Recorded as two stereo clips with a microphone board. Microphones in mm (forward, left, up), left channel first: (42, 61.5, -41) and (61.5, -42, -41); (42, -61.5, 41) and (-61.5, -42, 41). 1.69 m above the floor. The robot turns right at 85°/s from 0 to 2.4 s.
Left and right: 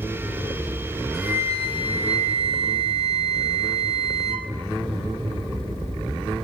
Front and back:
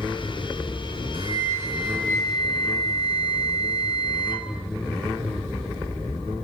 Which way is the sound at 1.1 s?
165° right.